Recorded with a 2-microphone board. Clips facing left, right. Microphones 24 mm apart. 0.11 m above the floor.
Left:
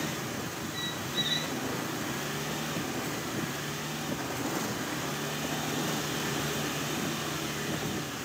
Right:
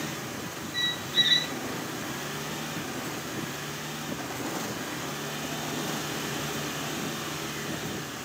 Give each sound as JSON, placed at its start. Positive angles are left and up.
{"t": 0.7, "sound": "a squeak", "side_deg": -40, "distance_m": 0.5}